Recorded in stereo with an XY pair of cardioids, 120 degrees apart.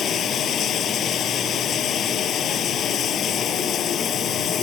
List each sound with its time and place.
0.0 s running water: 55° left